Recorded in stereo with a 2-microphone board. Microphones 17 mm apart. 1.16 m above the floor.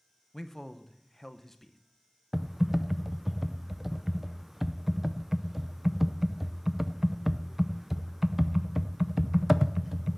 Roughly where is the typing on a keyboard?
Centre.